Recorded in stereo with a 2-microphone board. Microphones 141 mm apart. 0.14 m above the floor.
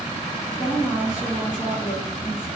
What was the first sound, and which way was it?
A woman speaking, 5° right (ahead or behind).